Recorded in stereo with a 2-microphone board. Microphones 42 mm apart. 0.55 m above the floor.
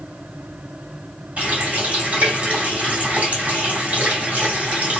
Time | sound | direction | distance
1.4 | a running tap | 35° right (ahead or behind) | 1.7 m